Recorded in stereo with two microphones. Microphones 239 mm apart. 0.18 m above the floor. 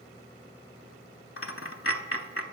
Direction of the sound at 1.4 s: 65° left (ahead or behind).